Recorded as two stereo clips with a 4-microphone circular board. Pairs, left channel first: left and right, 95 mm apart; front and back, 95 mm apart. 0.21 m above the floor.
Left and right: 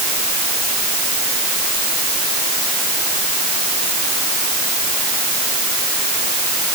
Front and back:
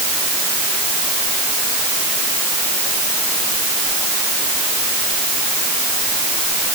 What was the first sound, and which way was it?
Only background noise.